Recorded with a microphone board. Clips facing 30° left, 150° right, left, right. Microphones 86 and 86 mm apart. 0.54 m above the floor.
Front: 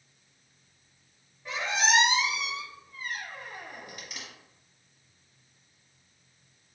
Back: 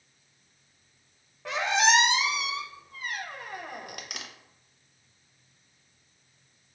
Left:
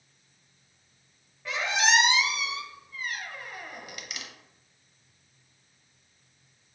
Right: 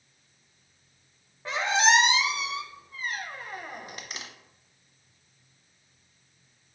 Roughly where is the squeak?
Behind right.